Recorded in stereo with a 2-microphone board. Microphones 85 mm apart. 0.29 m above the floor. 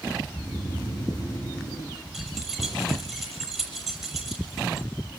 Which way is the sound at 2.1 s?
Centre (ahead or behind).